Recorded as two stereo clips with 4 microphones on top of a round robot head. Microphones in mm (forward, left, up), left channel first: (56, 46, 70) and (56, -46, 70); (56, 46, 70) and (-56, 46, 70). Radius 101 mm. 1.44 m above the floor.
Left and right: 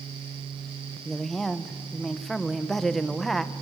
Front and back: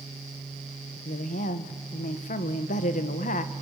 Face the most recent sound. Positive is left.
turn(degrees=0)